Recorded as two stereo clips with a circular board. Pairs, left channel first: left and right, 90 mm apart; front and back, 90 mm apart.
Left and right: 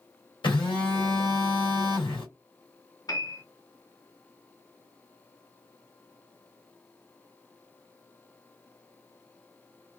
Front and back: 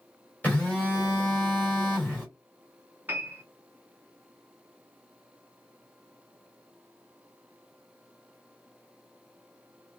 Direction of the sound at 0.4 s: 70° left.